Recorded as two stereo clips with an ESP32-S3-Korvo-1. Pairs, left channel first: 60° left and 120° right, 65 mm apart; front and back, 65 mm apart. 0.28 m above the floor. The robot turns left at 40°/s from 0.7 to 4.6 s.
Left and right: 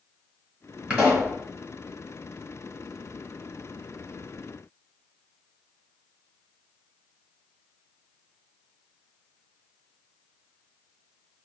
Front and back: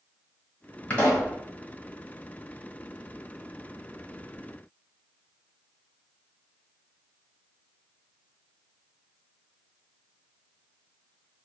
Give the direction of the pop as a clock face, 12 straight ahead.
2 o'clock.